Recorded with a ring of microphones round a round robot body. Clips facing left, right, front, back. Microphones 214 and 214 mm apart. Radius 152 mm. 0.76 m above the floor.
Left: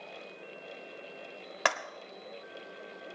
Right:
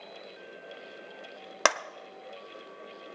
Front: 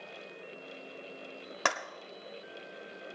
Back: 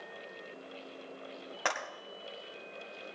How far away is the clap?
About 1.3 m.